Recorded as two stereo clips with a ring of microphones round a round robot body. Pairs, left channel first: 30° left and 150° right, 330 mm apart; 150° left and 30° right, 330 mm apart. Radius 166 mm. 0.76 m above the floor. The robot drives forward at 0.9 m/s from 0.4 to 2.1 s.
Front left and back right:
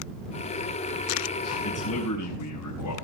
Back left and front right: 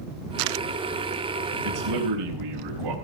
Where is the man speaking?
10° right, 4 m.